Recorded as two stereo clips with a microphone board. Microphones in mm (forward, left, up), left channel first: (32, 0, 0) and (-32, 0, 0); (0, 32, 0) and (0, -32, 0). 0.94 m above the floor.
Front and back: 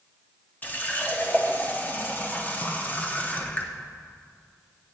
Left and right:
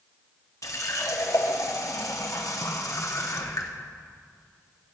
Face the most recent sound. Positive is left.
turn(degrees=60)